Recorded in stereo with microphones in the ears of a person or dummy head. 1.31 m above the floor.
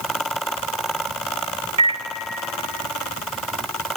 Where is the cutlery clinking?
I don't hear cutlery clinking.